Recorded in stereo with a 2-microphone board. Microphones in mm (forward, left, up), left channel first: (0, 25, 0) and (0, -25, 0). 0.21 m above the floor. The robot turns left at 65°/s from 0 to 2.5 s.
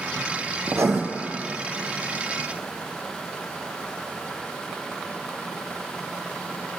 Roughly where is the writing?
Right.